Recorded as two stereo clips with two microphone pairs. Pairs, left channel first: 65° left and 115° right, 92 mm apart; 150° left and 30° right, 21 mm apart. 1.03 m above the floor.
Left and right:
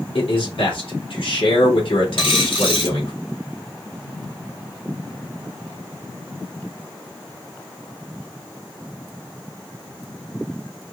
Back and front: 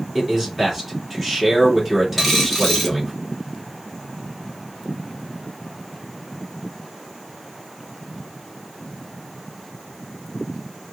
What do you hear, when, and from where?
0.1 s a man speaking: 50° left, 2.5 m
2.2 s a dropped coin: 70° left, 1.5 m